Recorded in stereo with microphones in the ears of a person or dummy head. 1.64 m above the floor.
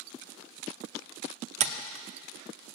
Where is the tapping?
40° right (ahead or behind), 0.6 m.